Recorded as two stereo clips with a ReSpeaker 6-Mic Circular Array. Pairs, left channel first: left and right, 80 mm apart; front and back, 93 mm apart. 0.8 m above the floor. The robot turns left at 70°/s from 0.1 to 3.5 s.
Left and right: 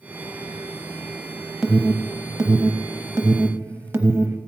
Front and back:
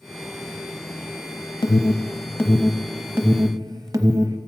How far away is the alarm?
About 0.8 m.